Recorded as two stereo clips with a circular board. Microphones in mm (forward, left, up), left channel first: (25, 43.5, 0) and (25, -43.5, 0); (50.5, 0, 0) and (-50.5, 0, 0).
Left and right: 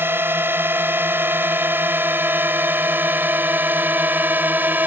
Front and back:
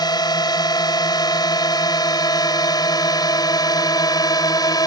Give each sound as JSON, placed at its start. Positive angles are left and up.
{"t": 0.0, "sound": "a drone", "azimuth_deg": -30}